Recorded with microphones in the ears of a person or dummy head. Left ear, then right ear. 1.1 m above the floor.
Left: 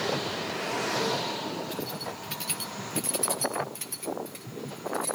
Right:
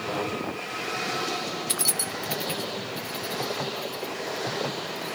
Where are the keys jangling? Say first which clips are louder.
Right 6 dB; 65° right (ahead or behind), 0.7 m; by 5.2 s 50° left (ahead or behind), 3.5 m.